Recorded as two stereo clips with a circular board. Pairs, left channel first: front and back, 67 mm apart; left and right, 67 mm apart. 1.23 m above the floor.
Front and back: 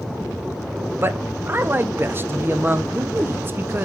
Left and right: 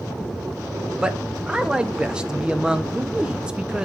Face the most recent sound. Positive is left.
turn(degrees=-160)